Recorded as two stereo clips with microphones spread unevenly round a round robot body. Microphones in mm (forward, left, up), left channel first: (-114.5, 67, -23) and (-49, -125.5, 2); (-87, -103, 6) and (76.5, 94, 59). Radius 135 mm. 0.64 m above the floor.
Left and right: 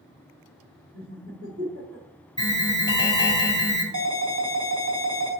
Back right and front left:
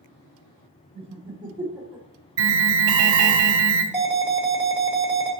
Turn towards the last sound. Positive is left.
turn(degrees=-35)